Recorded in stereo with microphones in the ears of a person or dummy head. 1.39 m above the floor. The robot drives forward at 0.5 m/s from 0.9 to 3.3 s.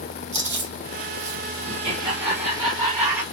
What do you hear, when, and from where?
0.3 s chewing: 15° right (ahead or behind), 2 m; by 1.4 s 20° right (ahead or behind), 1.9 m
1.7 s laughter: 25° right (ahead or behind), 0.7 m; by 3.2 s 10° right (ahead or behind), 1.4 m